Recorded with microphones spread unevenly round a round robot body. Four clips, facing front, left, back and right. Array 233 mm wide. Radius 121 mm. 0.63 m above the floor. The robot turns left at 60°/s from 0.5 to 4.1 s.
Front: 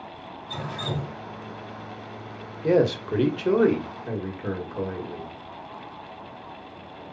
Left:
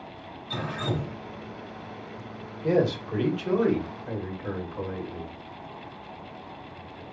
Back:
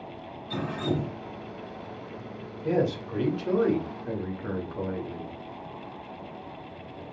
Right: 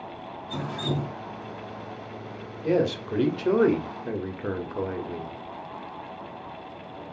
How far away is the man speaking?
About 1.8 m.